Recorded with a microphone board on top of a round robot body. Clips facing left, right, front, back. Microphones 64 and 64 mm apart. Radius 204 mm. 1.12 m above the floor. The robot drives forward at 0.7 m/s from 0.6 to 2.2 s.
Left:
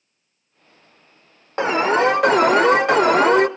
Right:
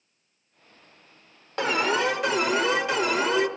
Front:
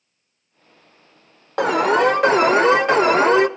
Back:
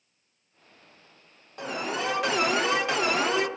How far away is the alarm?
About 0.8 m.